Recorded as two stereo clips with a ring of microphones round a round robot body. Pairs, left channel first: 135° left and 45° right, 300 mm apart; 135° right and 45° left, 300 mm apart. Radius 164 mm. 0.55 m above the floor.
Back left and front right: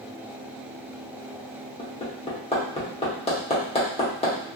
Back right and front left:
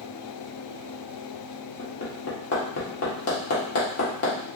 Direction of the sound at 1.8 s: 160° right.